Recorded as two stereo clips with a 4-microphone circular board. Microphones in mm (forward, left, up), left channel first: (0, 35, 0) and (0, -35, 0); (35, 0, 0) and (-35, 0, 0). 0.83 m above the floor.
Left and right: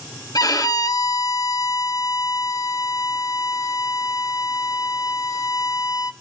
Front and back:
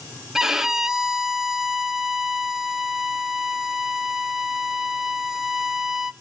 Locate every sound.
0.3 s a violin: 100° left, 1.5 m